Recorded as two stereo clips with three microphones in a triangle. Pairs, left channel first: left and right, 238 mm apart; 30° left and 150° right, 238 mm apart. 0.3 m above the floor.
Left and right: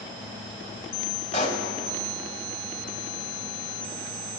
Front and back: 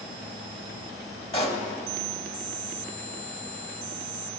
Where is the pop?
65° left, 1.0 m.